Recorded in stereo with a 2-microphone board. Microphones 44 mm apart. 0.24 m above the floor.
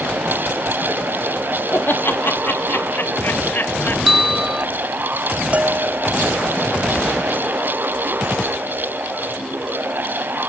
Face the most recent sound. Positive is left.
turn(degrees=-35)  # may be behind; listen again after turning